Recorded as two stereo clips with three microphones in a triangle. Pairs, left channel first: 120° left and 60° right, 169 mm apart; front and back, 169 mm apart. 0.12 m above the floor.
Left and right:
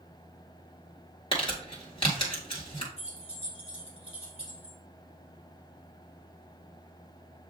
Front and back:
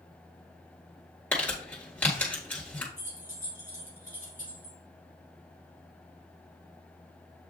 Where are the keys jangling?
170° left, 2 m.